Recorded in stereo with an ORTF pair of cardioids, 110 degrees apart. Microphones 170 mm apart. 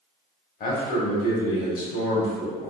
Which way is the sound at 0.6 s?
60° left.